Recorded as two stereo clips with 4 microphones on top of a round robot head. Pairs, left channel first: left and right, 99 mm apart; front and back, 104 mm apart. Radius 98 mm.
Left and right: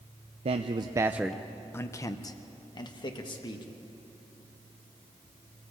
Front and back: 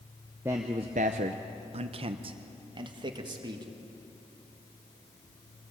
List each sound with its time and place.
0.5 s a man speaking: 105° right, 0.6 m; by 3.6 s 130° left, 1.9 m